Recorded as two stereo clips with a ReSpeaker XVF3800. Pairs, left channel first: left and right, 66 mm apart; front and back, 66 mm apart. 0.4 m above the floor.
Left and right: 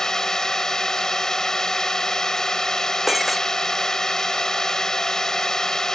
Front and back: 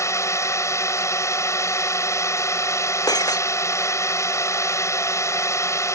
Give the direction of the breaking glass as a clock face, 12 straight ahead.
12 o'clock.